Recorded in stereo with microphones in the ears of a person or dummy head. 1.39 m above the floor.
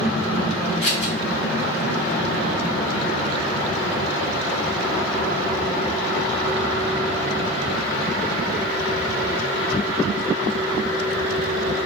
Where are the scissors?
60° left (ahead or behind), 0.8 m.